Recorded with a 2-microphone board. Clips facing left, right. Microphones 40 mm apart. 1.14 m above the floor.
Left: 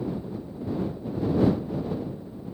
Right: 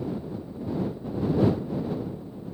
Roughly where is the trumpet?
I don't hear a trumpet.